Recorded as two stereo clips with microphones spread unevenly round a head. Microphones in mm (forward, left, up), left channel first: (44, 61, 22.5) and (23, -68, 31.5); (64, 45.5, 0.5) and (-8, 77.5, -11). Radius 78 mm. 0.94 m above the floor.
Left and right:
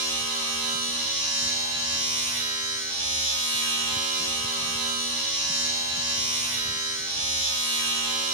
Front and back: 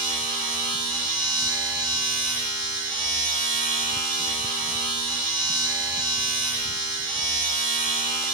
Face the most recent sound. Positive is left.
turn(degrees=130)